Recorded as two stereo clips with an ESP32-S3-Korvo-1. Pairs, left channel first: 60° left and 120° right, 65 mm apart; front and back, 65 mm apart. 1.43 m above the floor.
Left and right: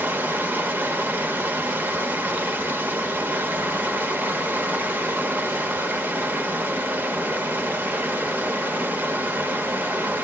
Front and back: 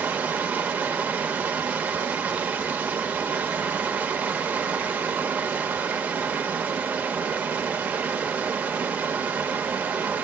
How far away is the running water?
About 0.9 m.